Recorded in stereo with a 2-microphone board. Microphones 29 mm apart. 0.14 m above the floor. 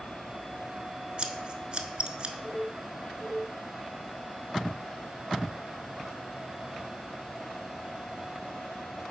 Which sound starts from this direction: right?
Scissors, at 1.2 s.